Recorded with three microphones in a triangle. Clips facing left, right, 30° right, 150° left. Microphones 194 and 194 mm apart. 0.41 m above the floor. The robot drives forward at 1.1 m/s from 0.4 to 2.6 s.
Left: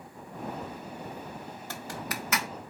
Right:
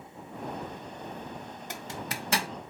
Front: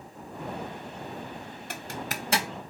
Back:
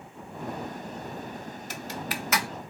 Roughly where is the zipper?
Ahead.